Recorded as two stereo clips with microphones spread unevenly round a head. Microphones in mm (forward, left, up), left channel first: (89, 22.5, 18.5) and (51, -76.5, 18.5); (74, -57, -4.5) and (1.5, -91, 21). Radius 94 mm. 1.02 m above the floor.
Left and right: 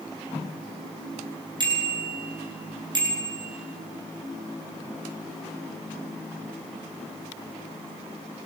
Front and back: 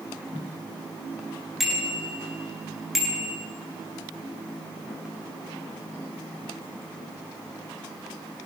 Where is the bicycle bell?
70° right, 9.5 m.